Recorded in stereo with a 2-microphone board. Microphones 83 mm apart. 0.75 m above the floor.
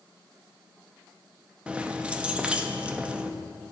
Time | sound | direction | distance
1.7 | keys jangling | 10° right (ahead or behind) | 0.5 m